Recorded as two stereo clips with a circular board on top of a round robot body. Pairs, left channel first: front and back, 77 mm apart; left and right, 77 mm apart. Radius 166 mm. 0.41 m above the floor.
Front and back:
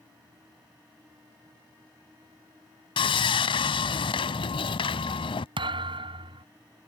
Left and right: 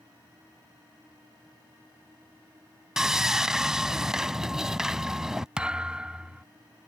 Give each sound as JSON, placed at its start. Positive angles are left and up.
{"t": 3.0, "sound": "sawing", "azimuth_deg": -5}
{"t": 5.6, "sound": "a thud", "azimuth_deg": -170}